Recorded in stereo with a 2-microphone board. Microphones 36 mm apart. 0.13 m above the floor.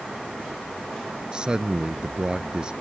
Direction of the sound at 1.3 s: 25° right (ahead or behind).